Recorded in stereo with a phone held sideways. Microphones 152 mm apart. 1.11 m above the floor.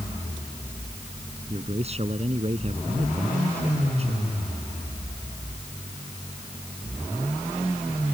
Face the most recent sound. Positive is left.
turn(degrees=-45)  # may be behind; listen again after turning